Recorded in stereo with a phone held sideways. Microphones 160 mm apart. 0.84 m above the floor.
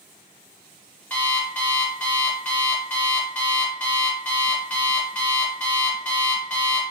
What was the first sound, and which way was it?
An alarm clock, 10° left (ahead or behind).